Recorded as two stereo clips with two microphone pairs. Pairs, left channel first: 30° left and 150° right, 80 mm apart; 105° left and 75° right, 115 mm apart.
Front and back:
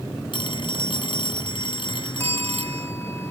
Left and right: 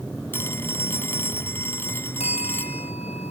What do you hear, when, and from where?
0.3 s a phone ringing: 35° left
2.2 s a bell: 90° left